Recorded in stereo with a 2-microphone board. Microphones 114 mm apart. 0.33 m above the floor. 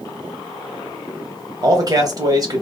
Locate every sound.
1.6 s a man speaking: 35° right (ahead or behind), 1.5 m